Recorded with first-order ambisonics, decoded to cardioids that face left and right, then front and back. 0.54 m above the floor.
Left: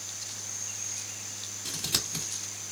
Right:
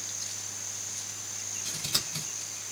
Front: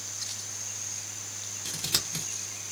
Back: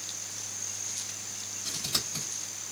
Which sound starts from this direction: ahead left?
Scissors, at 1.6 s.